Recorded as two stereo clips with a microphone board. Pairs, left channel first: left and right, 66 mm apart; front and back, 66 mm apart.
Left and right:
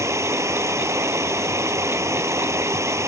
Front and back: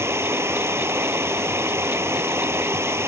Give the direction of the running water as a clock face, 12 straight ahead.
4 o'clock.